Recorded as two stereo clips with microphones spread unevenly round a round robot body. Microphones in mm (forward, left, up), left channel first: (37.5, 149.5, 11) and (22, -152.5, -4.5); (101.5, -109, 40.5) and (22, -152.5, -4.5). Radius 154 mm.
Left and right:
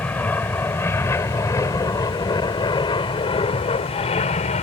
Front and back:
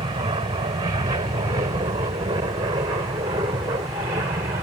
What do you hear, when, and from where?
0.0 s an aircraft: 170° left; by 4.6 s 155° left